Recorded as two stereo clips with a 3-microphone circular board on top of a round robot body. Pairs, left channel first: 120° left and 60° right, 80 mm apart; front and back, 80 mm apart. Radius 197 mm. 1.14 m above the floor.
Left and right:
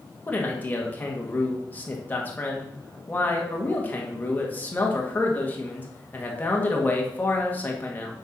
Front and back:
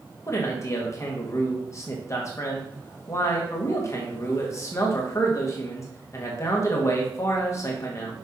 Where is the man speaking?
50° left, 2.0 m.